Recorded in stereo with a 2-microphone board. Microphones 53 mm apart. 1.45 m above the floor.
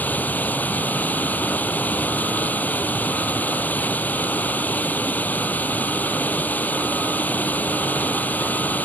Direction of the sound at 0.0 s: 30° left (ahead or behind).